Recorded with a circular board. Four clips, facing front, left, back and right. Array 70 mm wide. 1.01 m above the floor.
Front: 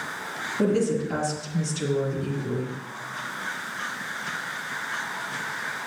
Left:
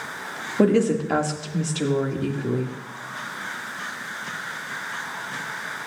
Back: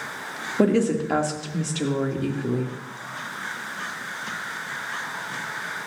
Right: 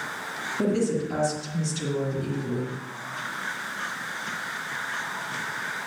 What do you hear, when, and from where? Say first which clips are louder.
0.6 s a woman speaking: left 6 dB, back 3 dB; 130° left, 1.8 m